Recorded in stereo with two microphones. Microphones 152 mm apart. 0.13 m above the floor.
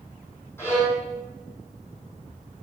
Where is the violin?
15° left (ahead or behind), 4.5 m.